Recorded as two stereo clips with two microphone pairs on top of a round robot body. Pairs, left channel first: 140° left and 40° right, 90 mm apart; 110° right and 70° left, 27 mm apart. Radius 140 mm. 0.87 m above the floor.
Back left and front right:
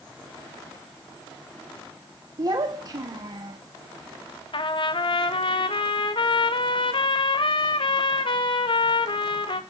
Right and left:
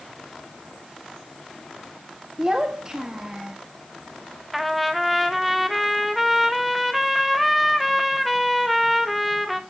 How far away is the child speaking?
About 1.5 m.